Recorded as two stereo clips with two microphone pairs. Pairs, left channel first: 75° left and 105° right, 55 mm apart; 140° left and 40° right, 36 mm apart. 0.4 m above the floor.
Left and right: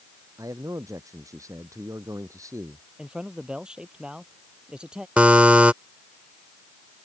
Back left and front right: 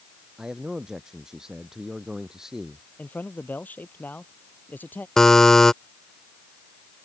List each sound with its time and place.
0.4 s a man speaking: 110° right; by 2.9 s 115° right
3.0 s a man speaking: straight behind
5.2 s a buzzer: 150° right